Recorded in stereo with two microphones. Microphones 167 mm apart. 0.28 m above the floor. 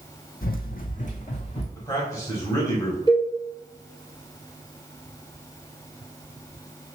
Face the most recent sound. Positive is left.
turn(degrees=30)  # may be behind; listen again after turning